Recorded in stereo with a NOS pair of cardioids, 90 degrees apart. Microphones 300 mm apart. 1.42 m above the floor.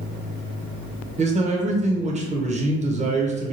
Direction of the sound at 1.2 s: 25° right.